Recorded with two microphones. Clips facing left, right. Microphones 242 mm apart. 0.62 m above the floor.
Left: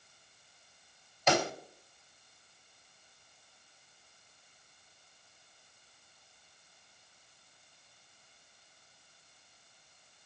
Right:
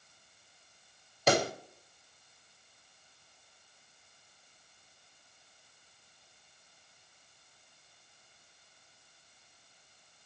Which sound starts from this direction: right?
A pop, at 1.3 s.